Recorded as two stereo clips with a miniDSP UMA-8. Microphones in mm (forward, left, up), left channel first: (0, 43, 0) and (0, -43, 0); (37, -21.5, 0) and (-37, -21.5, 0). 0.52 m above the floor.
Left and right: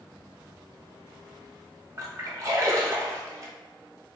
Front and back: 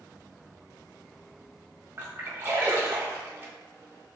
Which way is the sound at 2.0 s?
130° right.